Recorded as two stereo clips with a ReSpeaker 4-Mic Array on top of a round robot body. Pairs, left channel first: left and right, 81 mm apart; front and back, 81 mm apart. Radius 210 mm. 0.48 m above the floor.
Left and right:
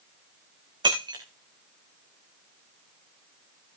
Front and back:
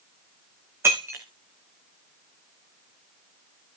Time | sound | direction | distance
0.8 | breaking glass | 120° right | 3 m